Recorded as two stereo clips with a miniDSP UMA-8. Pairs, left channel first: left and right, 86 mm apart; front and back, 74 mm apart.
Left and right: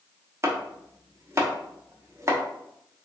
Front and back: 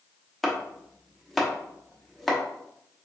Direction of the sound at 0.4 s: 85° right.